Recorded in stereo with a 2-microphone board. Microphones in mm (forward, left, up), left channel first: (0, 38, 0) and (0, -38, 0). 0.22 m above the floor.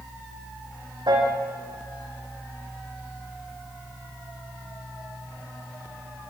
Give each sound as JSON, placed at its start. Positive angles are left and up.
{"t": 1.1, "sound": "a piano", "side_deg": -75, "distance_m": 7.5}